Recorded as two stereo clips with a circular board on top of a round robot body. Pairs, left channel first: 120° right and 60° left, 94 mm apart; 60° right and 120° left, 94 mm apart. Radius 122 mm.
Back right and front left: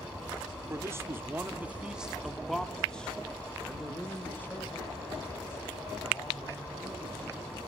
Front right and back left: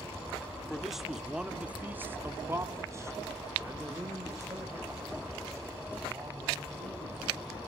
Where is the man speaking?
25° left, 1.7 m; by 7.6 s 175° left, 5.5 m.